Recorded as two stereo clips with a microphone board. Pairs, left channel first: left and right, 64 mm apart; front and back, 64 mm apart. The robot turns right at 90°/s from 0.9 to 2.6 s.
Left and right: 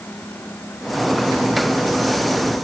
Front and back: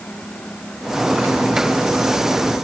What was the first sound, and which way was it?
Only background noise.